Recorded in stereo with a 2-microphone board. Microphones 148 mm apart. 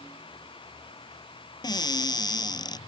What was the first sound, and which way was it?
A cupboard door, 30° left (ahead or behind).